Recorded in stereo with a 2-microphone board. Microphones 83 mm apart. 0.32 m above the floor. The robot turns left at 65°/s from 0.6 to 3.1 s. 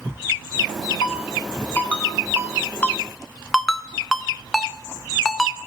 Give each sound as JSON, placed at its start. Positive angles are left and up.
{"t": 1.0, "sound": "a ringtone", "side_deg": 70, "distance_m": 5.0}
{"t": 2.8, "sound": "a ringtone", "side_deg": 20, "distance_m": 1.5}